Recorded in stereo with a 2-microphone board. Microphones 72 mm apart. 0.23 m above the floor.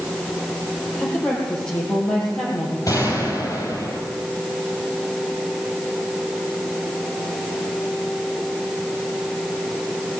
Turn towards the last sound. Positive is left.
turn(degrees=50)  # may be behind; listen again after turning